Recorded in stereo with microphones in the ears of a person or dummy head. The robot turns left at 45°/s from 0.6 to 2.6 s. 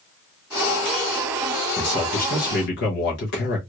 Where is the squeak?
No squeak in this recording.